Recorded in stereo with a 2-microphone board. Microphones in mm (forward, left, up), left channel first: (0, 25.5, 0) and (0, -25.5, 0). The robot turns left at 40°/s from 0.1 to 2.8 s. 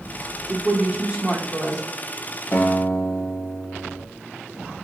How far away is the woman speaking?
About 0.7 m.